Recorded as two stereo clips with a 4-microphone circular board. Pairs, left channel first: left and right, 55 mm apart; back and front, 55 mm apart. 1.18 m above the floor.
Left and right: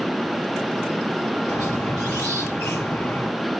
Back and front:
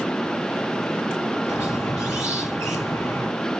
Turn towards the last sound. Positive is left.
turn(degrees=150)